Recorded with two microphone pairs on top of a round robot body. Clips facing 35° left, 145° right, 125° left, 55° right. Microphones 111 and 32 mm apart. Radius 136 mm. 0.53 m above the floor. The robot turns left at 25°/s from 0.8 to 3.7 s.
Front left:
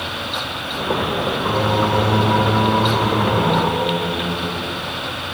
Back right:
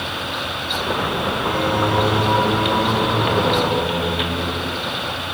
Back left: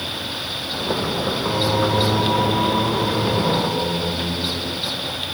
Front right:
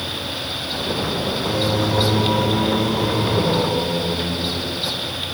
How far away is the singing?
About 6 m.